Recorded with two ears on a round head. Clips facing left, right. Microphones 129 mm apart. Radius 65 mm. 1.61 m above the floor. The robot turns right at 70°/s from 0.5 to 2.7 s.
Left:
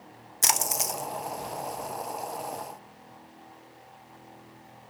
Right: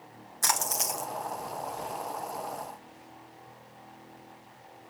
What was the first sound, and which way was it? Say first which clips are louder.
A splash: left 1 dB; 155° left.